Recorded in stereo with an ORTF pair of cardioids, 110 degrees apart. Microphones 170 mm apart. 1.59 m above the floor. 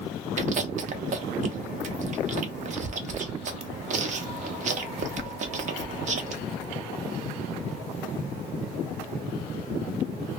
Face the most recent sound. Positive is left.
turn(degrees=-45)